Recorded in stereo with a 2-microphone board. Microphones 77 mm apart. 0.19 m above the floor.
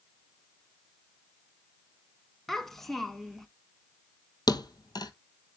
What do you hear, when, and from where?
2.5 s a child speaking: 5° left (ahead or behind), 0.8 m
4.5 s a thud: 60° left (ahead or behind), 0.8 m